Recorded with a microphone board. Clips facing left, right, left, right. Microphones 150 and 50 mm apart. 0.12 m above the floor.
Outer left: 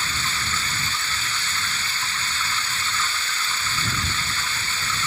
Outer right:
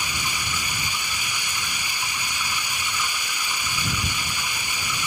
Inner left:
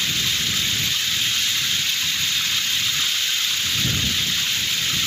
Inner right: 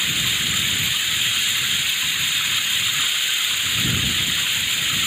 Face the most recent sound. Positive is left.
turn(degrees=-15)  # may be behind; listen again after turning